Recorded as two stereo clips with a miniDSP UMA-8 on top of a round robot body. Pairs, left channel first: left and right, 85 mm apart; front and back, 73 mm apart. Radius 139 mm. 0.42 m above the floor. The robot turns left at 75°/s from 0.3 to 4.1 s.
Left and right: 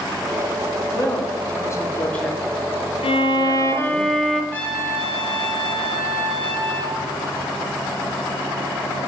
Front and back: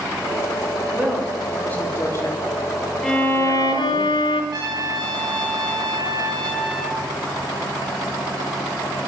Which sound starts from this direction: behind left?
A woman speaking, at 0.9 s.